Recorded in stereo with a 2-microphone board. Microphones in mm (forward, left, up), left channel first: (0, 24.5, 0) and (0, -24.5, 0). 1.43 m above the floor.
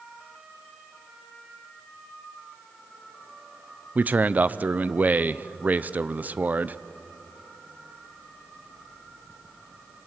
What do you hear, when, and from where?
4.0 s a man speaking: 30° right (ahead or behind), 0.6 m